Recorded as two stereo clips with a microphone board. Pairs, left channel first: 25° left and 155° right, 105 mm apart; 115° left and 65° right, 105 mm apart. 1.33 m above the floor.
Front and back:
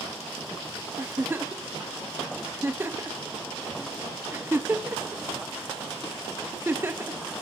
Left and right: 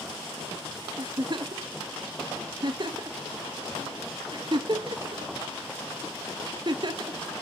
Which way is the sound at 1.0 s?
95° right.